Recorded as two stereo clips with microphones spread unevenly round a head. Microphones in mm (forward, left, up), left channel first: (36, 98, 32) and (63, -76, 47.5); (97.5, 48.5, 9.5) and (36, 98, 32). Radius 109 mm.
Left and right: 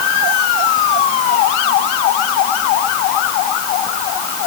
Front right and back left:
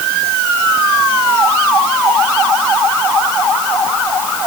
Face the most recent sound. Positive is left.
No sound to turn to.